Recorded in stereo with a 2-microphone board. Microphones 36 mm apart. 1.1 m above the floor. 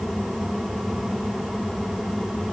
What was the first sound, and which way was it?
Only background noise.